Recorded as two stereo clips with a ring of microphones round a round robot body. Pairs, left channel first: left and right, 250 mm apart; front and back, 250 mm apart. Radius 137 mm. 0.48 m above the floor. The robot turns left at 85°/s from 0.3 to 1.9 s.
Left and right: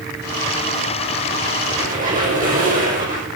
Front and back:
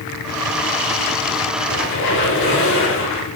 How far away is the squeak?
About 6.5 m.